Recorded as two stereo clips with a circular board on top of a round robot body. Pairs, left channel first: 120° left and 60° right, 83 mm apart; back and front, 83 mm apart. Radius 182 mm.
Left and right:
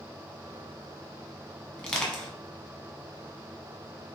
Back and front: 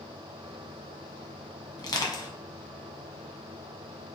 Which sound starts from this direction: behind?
Crushing, at 1.8 s.